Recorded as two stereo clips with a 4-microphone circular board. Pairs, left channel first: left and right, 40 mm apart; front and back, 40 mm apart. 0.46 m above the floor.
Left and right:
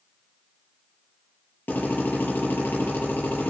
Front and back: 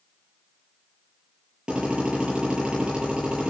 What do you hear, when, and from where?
1.7 s a drill: 115° left, 6.5 m